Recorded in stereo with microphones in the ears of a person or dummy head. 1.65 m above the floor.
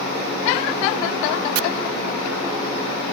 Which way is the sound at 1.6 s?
80° right.